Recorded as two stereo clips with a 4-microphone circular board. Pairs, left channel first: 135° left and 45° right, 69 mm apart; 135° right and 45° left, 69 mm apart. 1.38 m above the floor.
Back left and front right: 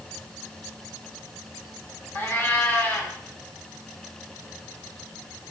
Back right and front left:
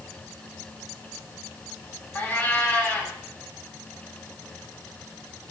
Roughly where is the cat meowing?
Behind.